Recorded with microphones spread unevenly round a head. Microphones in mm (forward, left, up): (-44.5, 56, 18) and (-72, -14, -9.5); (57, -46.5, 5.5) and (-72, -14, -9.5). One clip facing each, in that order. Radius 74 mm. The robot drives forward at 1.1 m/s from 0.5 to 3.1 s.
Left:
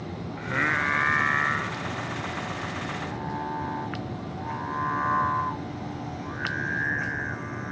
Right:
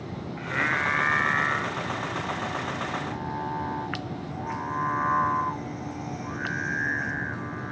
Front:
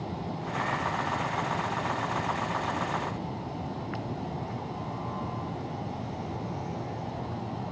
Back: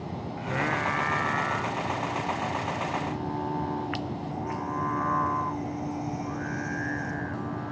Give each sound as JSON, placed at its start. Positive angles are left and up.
{"t": 0.4, "sound": "singing", "azimuth_deg": 140}